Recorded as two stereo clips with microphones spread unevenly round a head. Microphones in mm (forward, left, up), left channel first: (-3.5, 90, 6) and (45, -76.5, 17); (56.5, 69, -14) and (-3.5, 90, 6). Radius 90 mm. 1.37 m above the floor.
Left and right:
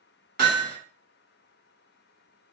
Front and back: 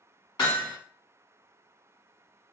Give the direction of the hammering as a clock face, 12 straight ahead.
2 o'clock.